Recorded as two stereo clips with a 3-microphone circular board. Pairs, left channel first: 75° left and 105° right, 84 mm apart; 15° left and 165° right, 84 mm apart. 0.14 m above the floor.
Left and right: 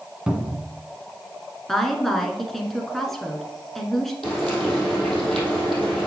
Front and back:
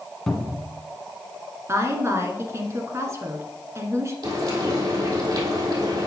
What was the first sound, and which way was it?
A cupboard door, 60° right.